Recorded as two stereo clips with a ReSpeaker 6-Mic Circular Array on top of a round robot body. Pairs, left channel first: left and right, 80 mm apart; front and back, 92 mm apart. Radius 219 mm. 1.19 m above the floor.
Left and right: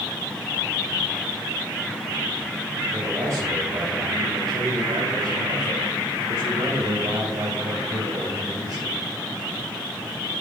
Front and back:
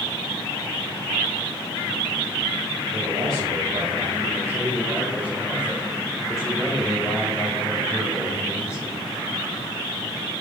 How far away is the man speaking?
About 3 m.